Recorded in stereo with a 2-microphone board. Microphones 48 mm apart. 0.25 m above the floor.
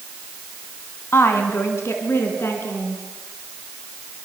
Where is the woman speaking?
60° left (ahead or behind), 3 m; by 3.0 s 70° left (ahead or behind), 4 m.